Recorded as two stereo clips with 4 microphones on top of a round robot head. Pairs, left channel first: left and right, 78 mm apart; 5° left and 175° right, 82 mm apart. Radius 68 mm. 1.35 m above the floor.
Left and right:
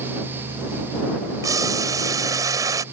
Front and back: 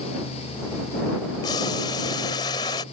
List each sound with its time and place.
1.4 s boiling: 45° right